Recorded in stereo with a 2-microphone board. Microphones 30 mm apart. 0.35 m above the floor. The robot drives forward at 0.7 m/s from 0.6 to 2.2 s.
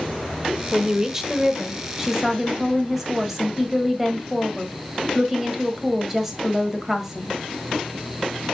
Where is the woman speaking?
15° right (ahead or behind), 1.0 m; by 7.3 s 10° right (ahead or behind), 1.6 m.